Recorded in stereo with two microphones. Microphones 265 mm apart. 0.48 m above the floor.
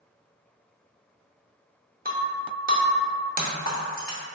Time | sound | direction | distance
2.0 | breaking glass | 35° right (ahead or behind) | 0.5 m